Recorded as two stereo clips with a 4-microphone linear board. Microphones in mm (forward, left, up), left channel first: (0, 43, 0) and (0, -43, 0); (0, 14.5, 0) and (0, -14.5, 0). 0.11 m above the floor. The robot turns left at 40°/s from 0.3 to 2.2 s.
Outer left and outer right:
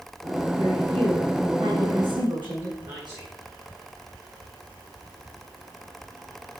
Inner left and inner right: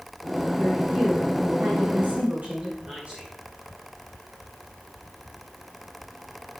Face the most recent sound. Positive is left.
turn(degrees=-60)  # may be behind; listen again after turning